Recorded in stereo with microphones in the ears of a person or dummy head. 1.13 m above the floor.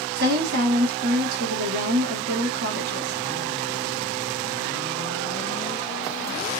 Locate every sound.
0.1 s a woman speaking: 60° right (ahead or behind), 1.2 m